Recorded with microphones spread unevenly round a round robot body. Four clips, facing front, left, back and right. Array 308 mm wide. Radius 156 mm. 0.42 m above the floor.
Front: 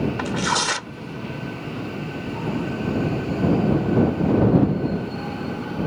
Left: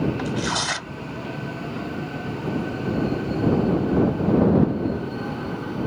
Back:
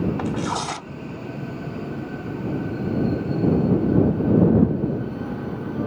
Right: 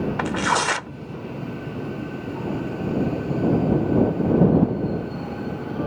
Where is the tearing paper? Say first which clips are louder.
Right 4 dB, front 2 dB; 75° right.